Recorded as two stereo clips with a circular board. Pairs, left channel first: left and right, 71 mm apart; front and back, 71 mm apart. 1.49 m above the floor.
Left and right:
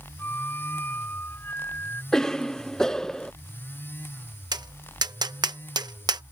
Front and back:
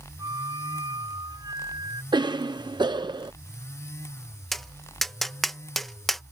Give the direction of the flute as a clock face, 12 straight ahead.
7 o'clock.